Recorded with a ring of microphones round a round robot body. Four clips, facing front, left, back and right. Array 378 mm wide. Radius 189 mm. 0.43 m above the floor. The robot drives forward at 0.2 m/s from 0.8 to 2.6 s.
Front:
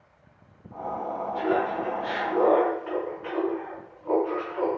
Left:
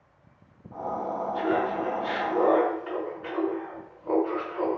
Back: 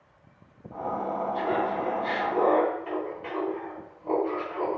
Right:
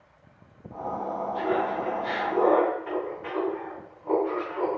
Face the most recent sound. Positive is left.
turn(degrees=160)